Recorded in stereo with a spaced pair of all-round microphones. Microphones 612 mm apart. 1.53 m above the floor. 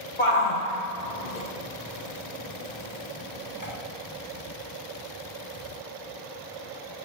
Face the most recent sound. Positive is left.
turn(degrees=25)  # may be behind; listen again after turning